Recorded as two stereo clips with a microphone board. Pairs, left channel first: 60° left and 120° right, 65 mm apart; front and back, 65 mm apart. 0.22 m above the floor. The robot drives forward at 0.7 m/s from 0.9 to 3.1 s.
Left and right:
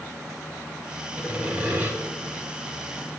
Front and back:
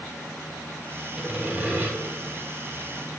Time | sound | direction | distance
1.2 | sawing | 120° right | 1.0 m